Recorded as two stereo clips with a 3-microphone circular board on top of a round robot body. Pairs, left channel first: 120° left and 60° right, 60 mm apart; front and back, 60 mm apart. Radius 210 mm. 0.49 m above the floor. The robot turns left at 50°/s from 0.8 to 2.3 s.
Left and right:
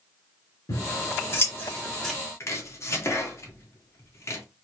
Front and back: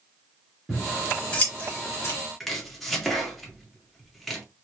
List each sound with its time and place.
0.7 s scissors: 100° left, 2.5 m; by 2.1 s 30° left, 2.5 m
2.4 s chopping: 85° left, 2.5 m